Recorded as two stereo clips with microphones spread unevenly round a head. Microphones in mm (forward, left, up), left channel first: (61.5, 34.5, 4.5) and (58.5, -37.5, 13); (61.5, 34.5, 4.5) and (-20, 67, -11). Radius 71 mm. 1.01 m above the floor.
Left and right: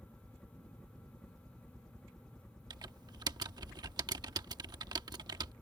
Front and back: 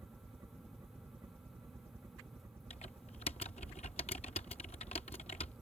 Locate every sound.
0.0 s a helicopter: 160° left
2.7 s typing on a keyboard: 70° right